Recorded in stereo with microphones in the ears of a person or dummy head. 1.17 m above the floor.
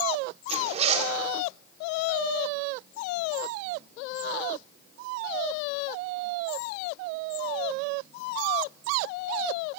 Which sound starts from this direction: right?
A zipper, at 0.5 s.